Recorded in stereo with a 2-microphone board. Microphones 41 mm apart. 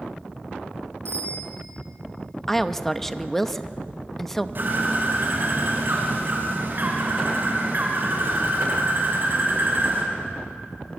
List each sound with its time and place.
1.1 s a bicycle bell: 90° right, 8 m
2.5 s a woman speaking: 5° left (ahead or behind), 1.0 m
4.5 s a bird: 50° right (ahead or behind), 5.5 m